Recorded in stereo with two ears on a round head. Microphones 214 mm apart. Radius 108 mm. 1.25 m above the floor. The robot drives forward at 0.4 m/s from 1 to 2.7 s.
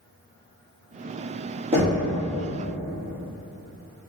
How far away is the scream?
I don't hear a scream.